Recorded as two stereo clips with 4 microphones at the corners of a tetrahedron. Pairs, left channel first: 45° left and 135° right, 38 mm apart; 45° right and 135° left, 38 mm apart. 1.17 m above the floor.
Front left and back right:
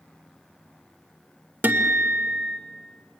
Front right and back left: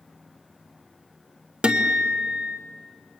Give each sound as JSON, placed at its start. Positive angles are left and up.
{"t": 1.6, "sound": "a guitar", "azimuth_deg": -165, "distance_m": 1.2}